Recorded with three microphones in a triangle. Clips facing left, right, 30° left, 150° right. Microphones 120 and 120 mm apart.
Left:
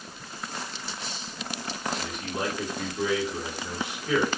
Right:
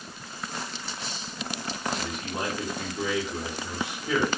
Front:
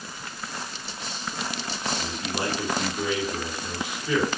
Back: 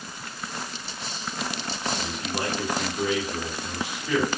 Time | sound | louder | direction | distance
1.9 | a man speaking | even, even | 25° right | 1.7 m